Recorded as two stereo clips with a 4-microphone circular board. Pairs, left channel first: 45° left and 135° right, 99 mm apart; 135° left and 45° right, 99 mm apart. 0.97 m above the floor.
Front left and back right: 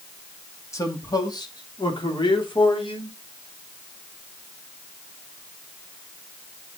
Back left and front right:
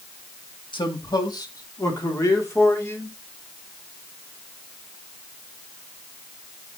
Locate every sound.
0.7 s a man speaking: 100° left, 2 m; by 3.2 s 70° left, 4 m